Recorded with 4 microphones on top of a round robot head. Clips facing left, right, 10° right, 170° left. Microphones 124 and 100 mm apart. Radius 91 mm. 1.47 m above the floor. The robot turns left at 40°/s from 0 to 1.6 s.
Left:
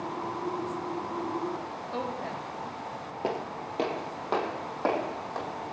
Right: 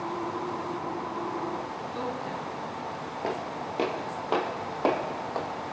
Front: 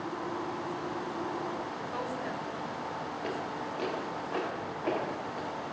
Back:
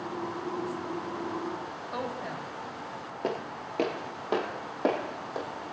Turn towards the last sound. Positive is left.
turn(degrees=-160)